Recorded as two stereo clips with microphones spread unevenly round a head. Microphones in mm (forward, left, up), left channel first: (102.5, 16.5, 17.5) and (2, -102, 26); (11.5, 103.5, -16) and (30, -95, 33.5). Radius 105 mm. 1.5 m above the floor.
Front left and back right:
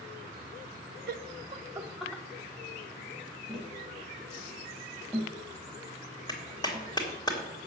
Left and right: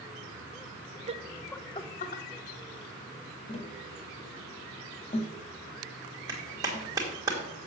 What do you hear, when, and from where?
1.1 s laughter: 150° right, 0.6 m; by 2.2 s 130° left, 0.9 m
3.5 s tapping: 150° left, 1.4 m
6.3 s a clap: 15° right, 3 m